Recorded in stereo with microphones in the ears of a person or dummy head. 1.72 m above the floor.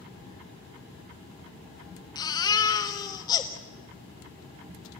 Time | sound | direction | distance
2.1 | a baby crying | 25° left (ahead or behind) | 1.4 m